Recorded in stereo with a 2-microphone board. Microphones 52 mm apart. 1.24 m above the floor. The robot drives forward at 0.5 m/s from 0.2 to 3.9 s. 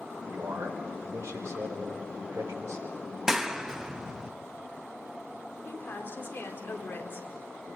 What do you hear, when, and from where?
0.3 s a man speaking: 55° right (ahead or behind), 5 m; by 3.0 s 70° right (ahead or behind), 4.5 m
3.3 s a clap: 5° right (ahead or behind), 1.1 m; by 4.3 s 10° right (ahead or behind), 0.8 m
5.7 s a woman speaking: 45° left (ahead or behind), 4.5 m